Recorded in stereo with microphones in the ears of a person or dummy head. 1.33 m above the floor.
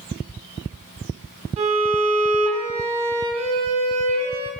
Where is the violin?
35° right (ahead or behind), 2.5 m.